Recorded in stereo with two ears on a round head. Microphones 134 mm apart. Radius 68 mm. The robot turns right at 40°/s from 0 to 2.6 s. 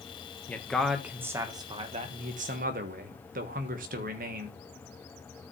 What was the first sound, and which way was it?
A man speaking, 165° left.